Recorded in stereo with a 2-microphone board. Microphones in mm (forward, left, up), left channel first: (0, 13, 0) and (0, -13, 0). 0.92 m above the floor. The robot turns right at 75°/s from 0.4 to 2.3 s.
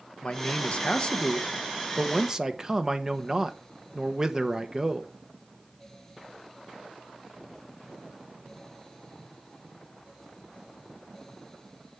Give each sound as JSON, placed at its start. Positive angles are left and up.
{"t": 0.2, "sound": "a man speaking", "azimuth_deg": 75, "distance_m": 1.0}